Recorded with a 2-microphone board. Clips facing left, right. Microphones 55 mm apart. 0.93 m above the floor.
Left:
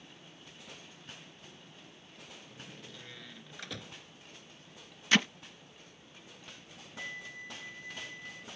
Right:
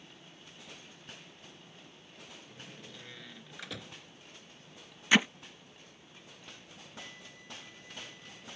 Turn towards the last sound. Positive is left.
turn(degrees=65)  # may be behind; listen again after turning